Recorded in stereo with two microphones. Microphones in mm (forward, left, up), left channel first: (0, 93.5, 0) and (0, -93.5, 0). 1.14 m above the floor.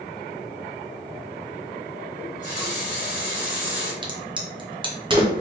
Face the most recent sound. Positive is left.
turn(degrees=-25)  # may be behind; listen again after turning